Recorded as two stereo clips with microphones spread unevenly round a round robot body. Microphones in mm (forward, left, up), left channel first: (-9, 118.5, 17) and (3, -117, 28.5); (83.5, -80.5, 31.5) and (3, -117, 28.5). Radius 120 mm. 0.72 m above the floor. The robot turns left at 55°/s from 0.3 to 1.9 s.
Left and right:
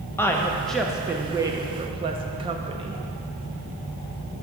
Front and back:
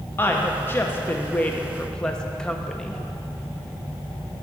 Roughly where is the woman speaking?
Ahead left.